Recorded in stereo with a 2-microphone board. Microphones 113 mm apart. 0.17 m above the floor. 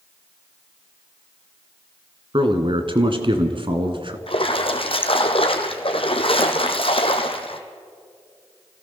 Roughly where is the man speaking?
Right.